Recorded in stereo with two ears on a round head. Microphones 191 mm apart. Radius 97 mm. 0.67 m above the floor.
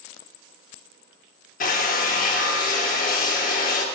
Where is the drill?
40° left (ahead or behind), 0.9 m.